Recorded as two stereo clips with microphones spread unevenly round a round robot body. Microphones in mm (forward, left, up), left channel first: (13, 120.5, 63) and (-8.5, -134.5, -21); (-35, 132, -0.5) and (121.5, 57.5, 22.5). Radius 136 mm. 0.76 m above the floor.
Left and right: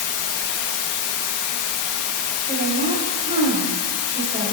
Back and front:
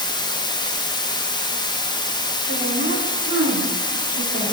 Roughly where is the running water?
Left.